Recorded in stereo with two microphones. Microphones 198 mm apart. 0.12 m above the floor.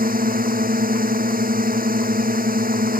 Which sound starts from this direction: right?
A drone, at 0.0 s.